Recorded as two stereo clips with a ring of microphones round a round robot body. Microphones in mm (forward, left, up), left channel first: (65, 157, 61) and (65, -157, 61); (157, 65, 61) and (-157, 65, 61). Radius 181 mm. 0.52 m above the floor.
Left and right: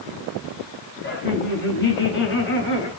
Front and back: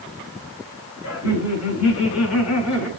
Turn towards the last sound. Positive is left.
turn(degrees=40)